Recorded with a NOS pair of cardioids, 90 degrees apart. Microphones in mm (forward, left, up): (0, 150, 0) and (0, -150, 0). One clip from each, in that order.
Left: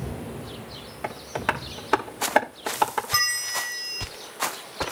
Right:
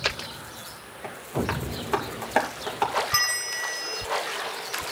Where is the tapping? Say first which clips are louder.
Left 2 dB; 45° left, 3.5 m.